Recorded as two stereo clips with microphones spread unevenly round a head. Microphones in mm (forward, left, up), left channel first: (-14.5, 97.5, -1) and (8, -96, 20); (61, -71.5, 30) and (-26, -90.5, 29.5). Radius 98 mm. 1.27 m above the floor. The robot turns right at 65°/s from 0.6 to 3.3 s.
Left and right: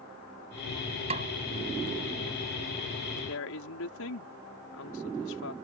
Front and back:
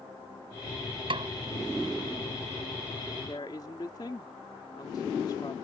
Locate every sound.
1.1 s a snare drum: 145° right; by 1.3 s 130° right
3.2 s a woman speaking: 75° left